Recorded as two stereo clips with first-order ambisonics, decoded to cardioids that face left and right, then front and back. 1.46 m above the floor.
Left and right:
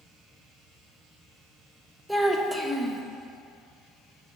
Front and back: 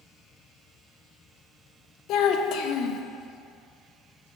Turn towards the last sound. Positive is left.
turn(degrees=0)